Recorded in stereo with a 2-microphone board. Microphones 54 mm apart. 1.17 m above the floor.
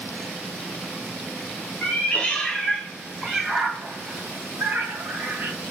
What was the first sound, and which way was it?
A cat meowing, 30° left (ahead or behind).